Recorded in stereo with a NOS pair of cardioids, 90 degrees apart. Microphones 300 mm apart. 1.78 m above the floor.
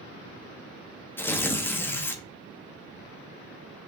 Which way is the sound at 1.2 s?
5° left.